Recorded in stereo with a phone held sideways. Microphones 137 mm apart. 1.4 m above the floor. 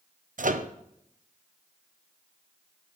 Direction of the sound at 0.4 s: 65° right (ahead or behind).